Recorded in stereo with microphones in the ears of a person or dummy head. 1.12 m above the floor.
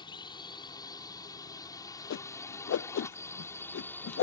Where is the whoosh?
70° left (ahead or behind).